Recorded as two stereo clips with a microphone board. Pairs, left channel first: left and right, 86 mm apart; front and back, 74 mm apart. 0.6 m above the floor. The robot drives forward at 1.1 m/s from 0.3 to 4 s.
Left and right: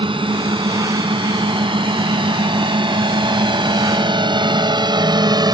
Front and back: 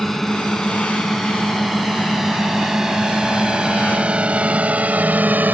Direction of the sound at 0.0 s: 85° right.